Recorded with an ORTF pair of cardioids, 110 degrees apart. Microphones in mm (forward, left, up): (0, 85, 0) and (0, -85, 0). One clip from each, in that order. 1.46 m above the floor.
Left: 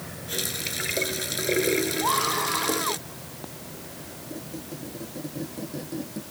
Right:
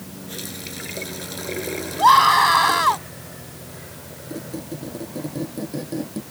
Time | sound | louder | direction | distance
0.3 | a running tap | left 5 dB | 35° left | ?
2.0 | a scream | right 18 dB | 70° right | ?
4.3 | a squeak | right 7 dB | 35° right | ?